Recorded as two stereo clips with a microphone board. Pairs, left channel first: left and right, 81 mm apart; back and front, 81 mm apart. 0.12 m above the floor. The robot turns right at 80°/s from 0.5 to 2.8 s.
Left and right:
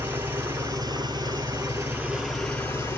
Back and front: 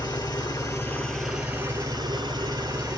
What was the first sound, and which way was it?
An engine running, 145° right.